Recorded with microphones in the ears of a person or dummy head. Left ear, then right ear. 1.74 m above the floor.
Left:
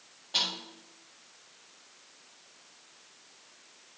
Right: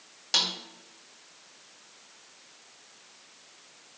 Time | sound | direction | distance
0.3 | a snare drum | 60° right (ahead or behind) | 2 m